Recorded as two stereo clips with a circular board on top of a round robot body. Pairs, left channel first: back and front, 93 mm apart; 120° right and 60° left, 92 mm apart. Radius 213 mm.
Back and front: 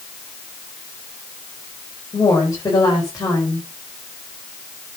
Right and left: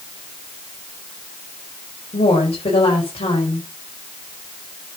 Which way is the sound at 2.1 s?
125° right.